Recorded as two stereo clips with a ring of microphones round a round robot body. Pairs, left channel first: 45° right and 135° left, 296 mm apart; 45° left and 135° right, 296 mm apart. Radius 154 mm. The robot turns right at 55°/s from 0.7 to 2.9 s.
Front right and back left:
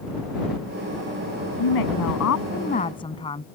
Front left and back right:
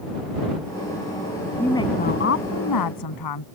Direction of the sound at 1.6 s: 45° right.